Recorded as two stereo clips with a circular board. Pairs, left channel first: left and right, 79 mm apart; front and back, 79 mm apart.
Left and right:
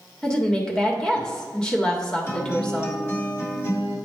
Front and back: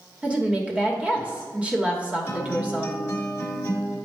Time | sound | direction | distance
0.2 | a woman speaking | 145° left | 1.1 m
2.3 | a guitar | 50° left | 1.5 m